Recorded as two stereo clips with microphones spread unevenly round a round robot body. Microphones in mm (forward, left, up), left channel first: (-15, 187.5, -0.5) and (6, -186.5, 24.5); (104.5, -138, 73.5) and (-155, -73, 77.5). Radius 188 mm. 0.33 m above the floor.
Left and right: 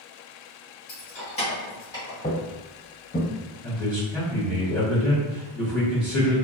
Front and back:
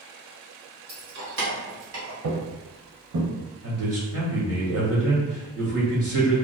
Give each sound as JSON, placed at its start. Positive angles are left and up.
{"t": 0.9, "sound": "keys jangling", "azimuth_deg": 135, "distance_m": 1.1}
{"t": 2.2, "sound": "footsteps", "azimuth_deg": 170, "distance_m": 0.6}
{"t": 3.6, "sound": "a man speaking", "azimuth_deg": -175, "distance_m": 1.6}